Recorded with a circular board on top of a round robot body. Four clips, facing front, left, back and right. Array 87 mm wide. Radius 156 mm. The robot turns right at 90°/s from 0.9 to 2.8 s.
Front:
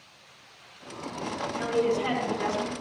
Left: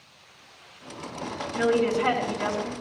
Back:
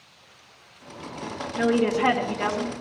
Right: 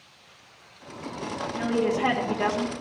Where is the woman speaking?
160° left, 2 m; by 2.7 s 95° right, 2 m.